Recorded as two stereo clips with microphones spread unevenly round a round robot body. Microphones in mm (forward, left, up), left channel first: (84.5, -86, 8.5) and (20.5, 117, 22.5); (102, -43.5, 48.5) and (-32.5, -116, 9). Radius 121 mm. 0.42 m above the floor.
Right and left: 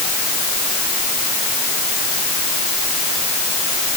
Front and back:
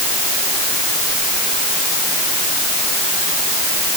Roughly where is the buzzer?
I don't hear a buzzer.